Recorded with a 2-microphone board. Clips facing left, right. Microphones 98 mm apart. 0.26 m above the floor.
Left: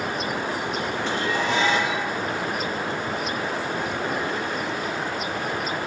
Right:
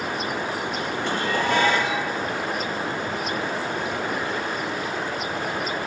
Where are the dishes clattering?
55° right (ahead or behind), 4 m.